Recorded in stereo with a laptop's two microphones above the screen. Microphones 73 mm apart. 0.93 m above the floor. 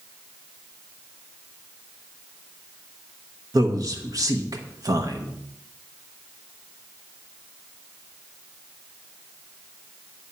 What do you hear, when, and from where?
3.5 s a man speaking: 55° right (ahead or behind), 1.0 m